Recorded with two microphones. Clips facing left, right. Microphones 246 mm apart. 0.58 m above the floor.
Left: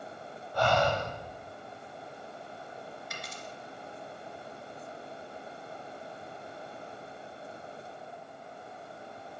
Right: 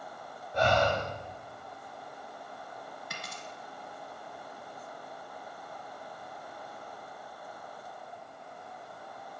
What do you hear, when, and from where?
0.5 s breathing: 20° right (ahead or behind), 0.8 m
3.1 s a dropped coin: 65° right (ahead or behind), 1.0 m